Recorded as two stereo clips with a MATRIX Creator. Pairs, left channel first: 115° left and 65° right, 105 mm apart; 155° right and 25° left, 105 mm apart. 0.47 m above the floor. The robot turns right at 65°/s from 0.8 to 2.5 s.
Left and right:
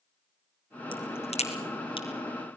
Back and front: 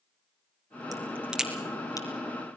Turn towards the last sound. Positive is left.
turn(degrees=180)